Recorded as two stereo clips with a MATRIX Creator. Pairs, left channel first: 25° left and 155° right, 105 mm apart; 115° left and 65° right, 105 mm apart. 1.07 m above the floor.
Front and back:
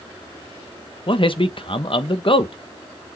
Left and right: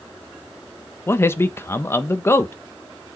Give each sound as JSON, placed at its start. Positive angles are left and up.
{"t": 1.1, "sound": "a man speaking", "azimuth_deg": 50, "distance_m": 1.0}